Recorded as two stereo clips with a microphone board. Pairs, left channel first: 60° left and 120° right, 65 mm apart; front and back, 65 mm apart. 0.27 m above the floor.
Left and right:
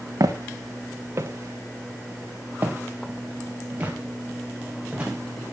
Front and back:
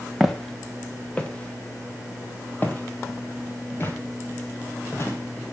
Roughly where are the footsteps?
Right.